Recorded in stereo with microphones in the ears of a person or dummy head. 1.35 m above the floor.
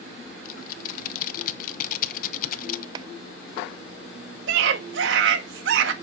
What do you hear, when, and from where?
0.5 s typing on a keyboard: 50° left (ahead or behind), 0.8 m
3.0 s a clap: 25° right (ahead or behind), 0.6 m
4.5 s a scream: 75° right (ahead or behind), 1.9 m